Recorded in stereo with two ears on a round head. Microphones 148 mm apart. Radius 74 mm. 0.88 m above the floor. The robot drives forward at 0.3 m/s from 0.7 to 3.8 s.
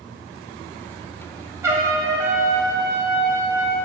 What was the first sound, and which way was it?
A trumpet, 15° right (ahead or behind).